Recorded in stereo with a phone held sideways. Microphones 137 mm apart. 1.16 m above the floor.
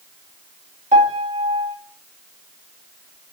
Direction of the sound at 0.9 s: 75° right (ahead or behind).